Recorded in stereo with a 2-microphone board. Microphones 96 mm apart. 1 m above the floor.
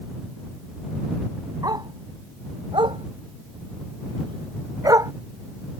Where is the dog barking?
45° right (ahead or behind); by 5.1 s 35° right (ahead or behind).